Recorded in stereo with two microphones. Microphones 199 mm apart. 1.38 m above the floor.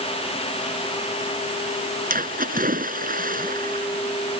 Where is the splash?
45° right (ahead or behind).